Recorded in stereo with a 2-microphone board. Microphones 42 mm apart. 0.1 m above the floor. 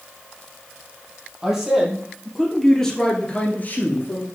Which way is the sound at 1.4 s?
15° right (ahead or behind).